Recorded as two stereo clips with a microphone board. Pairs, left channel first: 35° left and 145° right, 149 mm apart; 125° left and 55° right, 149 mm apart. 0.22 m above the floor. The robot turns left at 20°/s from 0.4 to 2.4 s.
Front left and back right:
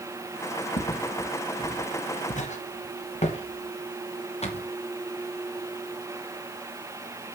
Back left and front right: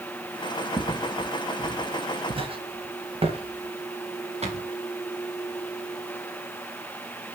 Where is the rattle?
I don't hear a rattle.